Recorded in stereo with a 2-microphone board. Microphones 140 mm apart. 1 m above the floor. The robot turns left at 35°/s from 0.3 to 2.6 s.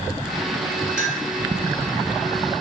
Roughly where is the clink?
Centre.